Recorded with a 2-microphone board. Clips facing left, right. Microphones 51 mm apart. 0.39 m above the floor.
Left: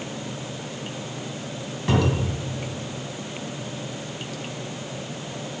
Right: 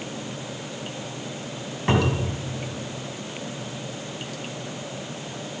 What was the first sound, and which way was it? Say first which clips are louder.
A cupboard door: even; 30° right (ahead or behind).